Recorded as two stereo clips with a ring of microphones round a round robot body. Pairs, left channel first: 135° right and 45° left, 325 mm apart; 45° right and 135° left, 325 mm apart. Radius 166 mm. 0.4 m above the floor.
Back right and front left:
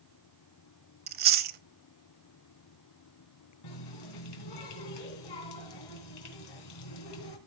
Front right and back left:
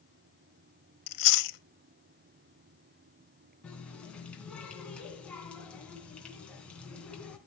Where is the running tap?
130° right, 3 m.